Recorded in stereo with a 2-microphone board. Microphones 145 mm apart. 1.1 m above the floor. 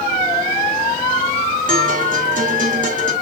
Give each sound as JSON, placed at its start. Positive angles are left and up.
{"t": 1.7, "sound": "a guitar", "side_deg": -60, "distance_m": 3.5}